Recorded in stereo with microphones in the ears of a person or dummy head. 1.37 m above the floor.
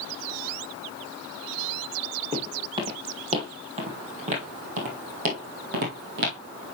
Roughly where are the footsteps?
Right.